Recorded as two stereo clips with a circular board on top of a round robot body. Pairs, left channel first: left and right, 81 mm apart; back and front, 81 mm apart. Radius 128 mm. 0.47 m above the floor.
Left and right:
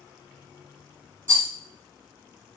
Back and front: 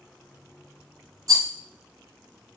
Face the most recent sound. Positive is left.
turn(degrees=20)